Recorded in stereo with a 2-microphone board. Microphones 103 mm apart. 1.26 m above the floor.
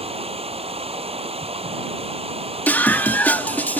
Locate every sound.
0.0 s running water: 70° right (ahead or behind)
2.7 s a scream: 15° left (ahead or behind)